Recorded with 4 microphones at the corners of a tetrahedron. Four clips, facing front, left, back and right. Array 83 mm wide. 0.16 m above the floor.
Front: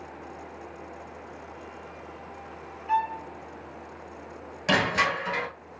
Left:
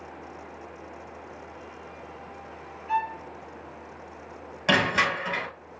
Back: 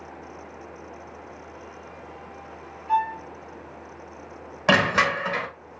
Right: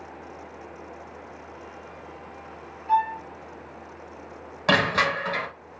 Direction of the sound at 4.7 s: 155° right.